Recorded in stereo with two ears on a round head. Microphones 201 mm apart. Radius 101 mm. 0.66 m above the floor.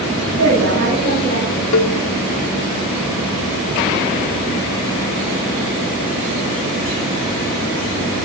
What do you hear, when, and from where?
0.4 s a woman speaking: 55° right (ahead or behind), 4 m
1.7 s a cowbell: 65° left (ahead or behind), 0.6 m